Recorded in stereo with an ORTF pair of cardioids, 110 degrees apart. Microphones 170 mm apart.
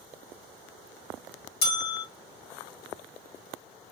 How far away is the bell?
About 1.1 m.